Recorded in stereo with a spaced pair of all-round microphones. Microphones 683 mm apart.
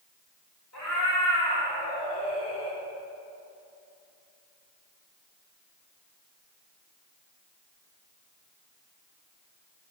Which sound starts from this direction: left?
A cat meowing, at 0.7 s.